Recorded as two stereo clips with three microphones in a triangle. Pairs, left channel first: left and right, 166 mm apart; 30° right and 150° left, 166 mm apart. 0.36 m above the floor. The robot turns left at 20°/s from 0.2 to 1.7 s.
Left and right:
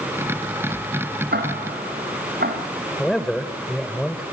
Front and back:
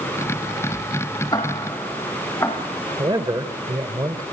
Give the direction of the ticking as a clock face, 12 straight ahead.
3 o'clock.